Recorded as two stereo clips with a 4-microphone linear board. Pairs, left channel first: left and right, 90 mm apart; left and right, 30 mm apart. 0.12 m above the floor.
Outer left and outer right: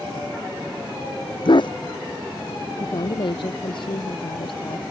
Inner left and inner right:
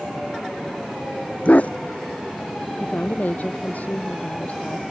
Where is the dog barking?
65° left (ahead or behind).